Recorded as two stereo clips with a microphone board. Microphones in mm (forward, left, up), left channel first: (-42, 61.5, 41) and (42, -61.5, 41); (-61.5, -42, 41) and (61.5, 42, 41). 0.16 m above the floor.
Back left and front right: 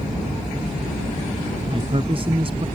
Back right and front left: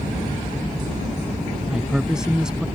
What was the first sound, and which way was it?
A man speaking, 45° right.